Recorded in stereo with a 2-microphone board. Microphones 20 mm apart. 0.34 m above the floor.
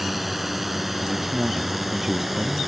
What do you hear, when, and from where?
0.0 s a drone: 15° right (ahead or behind)
1.0 s a man speaking: 30° right (ahead or behind)